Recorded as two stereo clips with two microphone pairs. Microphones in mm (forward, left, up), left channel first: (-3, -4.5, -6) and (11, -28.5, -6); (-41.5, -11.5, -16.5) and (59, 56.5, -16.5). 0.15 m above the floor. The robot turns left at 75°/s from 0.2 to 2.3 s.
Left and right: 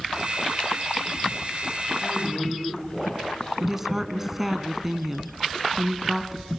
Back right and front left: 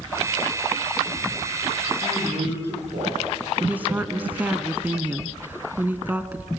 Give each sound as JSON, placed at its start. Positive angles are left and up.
{"t": 2.0, "sound": "a man speaking", "azimuth_deg": 80, "distance_m": 9.0}
{"t": 3.6, "sound": "a woman speaking", "azimuth_deg": -5, "distance_m": 1.0}